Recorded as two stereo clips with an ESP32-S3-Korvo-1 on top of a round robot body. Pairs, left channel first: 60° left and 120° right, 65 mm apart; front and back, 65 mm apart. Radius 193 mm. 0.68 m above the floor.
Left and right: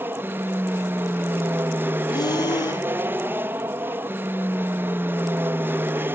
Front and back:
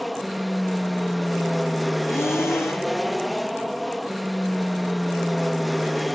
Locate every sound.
0.0 s an aircraft: 90° right
2.1 s breathing: 50° left